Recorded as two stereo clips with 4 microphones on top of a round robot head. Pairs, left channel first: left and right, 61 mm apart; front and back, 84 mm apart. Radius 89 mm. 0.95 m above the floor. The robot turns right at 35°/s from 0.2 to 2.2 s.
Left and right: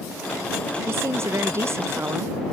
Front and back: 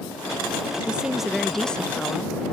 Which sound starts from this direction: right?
A woman speaking, at 0.9 s.